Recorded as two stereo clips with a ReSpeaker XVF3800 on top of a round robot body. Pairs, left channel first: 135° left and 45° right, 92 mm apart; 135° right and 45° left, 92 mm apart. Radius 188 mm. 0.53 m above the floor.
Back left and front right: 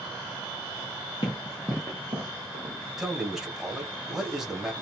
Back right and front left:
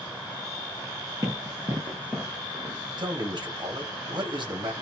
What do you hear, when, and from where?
1.2 s running footsteps: 100° left, 0.7 m; by 2.8 s 65° right, 0.8 m
3.0 s a man speaking: 40° left, 1.9 m